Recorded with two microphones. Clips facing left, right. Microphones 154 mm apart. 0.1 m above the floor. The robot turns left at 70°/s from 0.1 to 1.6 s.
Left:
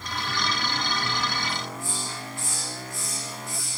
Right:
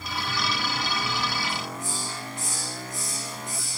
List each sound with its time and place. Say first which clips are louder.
1.5 s a hiss: right 1 dB; 25° right (ahead or behind), 7.5 m; by 3.8 s 20° right (ahead or behind), 7.5 m